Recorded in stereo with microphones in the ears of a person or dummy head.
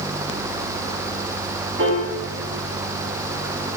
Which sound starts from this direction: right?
A piano, at 1.8 s.